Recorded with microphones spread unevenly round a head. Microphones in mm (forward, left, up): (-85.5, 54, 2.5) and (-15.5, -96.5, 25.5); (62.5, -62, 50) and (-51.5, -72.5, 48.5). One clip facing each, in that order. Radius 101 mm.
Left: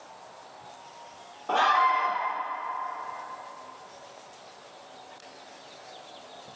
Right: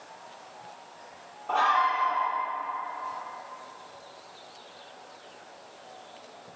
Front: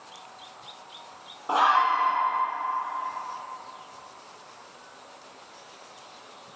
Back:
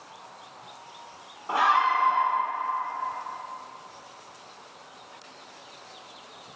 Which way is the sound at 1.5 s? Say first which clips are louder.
Left 2 dB, front 1 dB; 75° left.